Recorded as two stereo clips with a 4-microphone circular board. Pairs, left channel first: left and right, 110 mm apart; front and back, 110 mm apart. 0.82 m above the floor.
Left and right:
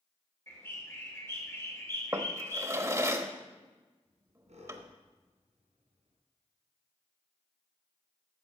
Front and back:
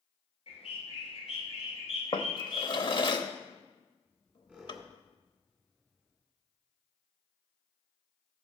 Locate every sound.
0.5 s a bird: 25° left, 2.5 m
2.1 s a drawer: 30° right, 0.8 m
4.0 s a squeak: 90° right, 4 m